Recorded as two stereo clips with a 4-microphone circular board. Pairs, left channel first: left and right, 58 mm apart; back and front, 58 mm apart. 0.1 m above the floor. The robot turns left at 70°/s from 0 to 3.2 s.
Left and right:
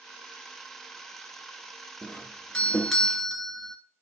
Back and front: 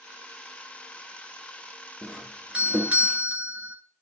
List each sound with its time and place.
2.0 s a doorbell: 80° left, 1.6 m; by 3.8 s straight ahead, 1.6 m